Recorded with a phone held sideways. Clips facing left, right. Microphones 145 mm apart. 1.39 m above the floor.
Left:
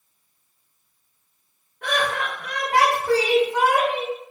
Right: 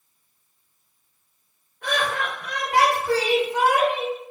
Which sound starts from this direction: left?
Laughter, at 1.8 s.